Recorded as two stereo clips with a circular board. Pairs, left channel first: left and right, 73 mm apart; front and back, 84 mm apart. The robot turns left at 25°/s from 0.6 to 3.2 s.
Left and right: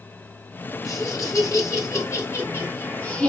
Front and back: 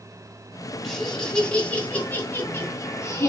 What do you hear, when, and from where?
0.8 s laughter: 90° left, 1.9 m; by 3.3 s 30° left, 1.9 m